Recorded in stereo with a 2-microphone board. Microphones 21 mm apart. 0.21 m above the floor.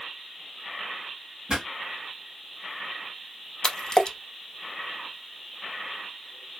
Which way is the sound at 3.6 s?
35° left (ahead or behind).